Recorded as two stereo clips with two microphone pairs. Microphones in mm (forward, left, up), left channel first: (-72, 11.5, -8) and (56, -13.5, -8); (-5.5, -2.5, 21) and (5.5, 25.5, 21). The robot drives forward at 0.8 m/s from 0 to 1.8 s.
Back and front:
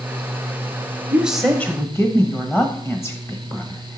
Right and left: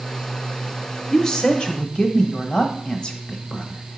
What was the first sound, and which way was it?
A woman speaking, 70° right.